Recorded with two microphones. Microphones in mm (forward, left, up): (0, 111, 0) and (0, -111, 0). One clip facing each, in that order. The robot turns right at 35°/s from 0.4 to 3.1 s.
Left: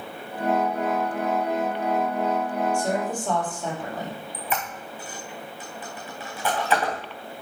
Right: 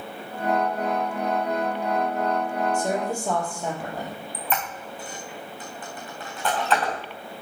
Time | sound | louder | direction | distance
2.7 | a woman speaking | even | 20° right (ahead or behind) | 4 m
4.3 | a squeak | right 2 dB | 10° left (ahead or behind) | 3 m